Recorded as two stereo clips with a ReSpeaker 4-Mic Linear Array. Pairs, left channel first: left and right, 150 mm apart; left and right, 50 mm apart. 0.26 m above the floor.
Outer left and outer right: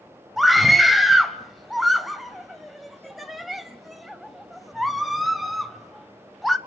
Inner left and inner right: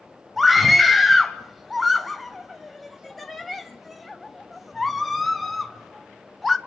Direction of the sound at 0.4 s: Centre (ahead or behind).